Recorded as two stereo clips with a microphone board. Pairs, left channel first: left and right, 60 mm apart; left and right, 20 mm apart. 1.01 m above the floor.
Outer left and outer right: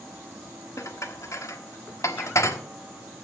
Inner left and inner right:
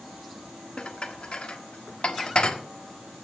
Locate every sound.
0.8 s dishes clattering: 55° left (ahead or behind), 1.5 m